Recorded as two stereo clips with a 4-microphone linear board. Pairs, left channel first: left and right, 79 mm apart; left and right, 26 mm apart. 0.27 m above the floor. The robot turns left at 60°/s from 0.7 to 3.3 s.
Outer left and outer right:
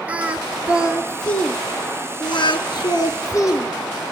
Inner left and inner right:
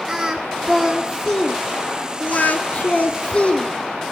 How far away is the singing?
About 1.0 m.